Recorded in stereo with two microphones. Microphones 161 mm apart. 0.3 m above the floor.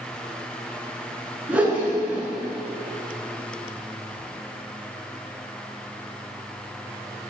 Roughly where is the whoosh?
Centre.